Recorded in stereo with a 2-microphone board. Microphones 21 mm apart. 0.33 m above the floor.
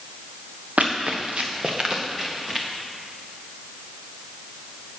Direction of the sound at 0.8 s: 75° right (ahead or behind).